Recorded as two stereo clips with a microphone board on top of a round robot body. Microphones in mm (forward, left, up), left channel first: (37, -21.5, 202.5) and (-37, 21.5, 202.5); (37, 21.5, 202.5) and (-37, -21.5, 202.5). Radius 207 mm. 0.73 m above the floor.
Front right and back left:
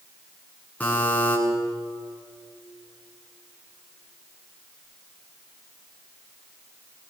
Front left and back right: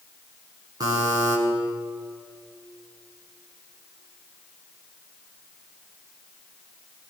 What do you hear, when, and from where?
0.8 s a buzzer: 105° right, 9.5 m